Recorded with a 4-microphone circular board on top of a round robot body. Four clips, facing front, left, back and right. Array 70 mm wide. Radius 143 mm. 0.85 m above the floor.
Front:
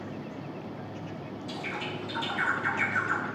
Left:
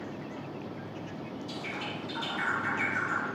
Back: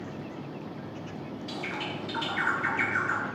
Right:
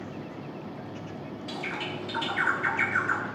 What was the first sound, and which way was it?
A bird, 120° right.